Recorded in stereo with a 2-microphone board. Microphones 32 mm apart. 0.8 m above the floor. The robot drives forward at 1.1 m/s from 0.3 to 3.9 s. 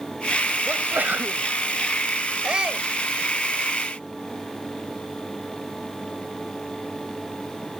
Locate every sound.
0.7 s a sneeze: 75° right (ahead or behind); by 1.5 s 65° right (ahead or behind)
2.4 s a shout: 30° right (ahead or behind)